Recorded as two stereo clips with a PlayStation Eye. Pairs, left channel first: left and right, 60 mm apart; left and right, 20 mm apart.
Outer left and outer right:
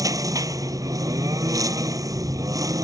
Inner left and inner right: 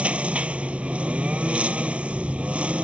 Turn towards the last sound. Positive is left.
turn(degrees=-85)